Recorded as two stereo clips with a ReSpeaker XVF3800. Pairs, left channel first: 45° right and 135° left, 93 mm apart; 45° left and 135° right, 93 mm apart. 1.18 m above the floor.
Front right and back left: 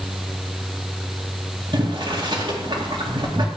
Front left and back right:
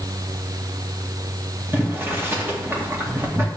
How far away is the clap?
No clap in this recording.